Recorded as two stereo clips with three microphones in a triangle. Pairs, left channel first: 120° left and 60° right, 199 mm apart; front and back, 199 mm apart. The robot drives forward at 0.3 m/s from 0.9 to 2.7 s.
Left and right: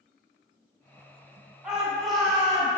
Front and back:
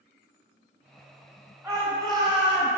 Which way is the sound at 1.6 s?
140° right.